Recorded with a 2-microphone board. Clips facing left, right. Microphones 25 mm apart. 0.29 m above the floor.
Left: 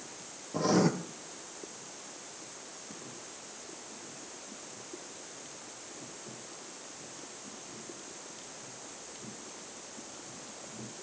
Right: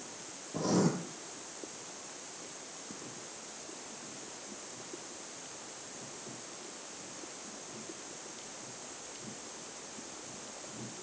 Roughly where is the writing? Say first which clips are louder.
Left 3 dB; left.